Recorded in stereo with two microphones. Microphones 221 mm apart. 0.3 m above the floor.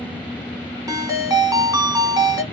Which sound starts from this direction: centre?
A ringtone, at 0.9 s.